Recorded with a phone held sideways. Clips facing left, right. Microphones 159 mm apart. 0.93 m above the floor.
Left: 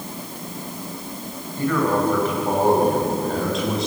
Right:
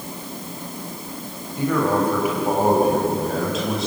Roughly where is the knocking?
I don't hear knocking.